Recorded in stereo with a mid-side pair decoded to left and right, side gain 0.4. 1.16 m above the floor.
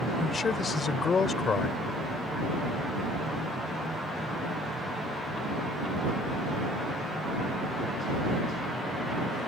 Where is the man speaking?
45° left.